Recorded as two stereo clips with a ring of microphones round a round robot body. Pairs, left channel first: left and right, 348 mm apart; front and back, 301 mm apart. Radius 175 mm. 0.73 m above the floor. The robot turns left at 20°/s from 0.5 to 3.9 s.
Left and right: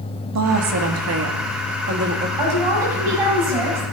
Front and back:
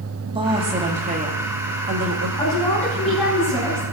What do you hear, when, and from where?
0.3 s a woman speaking: 110° right, 1.6 m; by 2.3 s 145° right, 1.6 m
2.4 s a woman speaking: 75° right, 5.5 m; by 3.8 s 105° right, 5.5 m